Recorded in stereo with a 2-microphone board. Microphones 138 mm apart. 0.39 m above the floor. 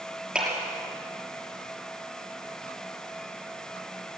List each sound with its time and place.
0.3 s a clap: 10° right (ahead or behind), 6 m